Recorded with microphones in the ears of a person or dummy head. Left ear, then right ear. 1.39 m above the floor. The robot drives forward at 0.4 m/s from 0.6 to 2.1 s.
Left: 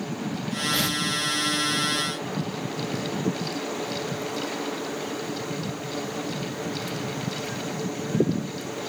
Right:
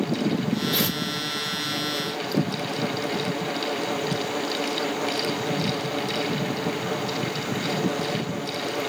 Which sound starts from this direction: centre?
Tearing paper, at 0.7 s.